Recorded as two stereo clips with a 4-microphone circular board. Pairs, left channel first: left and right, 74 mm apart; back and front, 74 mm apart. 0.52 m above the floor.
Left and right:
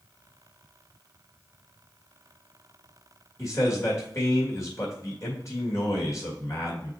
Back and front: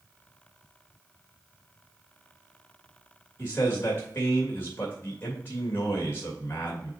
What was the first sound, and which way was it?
A man speaking, 125° left.